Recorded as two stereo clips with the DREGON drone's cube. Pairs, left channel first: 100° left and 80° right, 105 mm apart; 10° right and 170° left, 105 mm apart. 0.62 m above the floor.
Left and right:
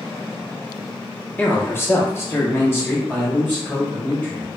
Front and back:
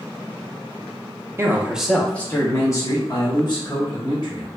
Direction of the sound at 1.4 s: 145° left.